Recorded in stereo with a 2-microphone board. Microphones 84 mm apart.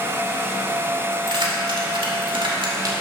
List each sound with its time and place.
1.1 s keys jangling: 60° right (ahead or behind), 1.7 m; by 2.9 s 50° right (ahead or behind), 1.5 m